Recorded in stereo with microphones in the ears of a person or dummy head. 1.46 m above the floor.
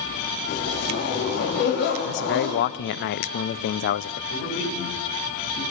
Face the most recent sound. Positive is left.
turn(degrees=80)